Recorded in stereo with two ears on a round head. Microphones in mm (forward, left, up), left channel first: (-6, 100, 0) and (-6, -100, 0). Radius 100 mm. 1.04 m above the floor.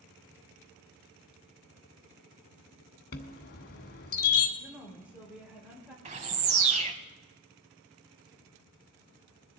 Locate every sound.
3.1 s a chime: 45° left (ahead or behind), 1.4 m
4.6 s a woman speaking: 10° right (ahead or behind), 4.5 m
6.0 s a bird: 30° right (ahead or behind), 1.0 m